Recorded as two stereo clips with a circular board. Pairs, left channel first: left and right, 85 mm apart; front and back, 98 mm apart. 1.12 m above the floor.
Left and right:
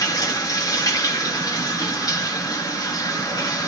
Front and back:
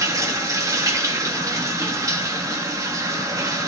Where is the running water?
125° left, 2.0 m.